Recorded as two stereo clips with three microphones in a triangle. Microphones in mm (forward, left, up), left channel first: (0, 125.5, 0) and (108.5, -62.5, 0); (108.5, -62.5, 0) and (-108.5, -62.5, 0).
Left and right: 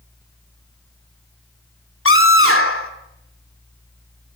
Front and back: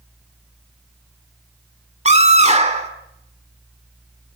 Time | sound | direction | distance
2.0 | a scream | 125° left | 2.5 m